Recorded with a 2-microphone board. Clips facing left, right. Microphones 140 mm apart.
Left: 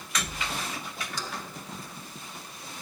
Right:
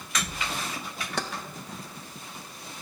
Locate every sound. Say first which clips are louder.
1.2 s keys jangling: right 8 dB; 65° right (ahead or behind), 0.5 m